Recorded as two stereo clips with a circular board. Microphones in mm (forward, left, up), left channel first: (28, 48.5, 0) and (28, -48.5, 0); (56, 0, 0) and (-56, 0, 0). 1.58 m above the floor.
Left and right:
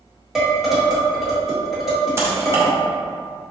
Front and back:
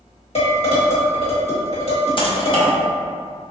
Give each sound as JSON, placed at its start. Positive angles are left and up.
{"t": 0.3, "sound": "dishes clattering", "azimuth_deg": -5, "distance_m": 1.3}
{"t": 2.2, "sound": "typing on a keyboard", "azimuth_deg": -35, "distance_m": 0.7}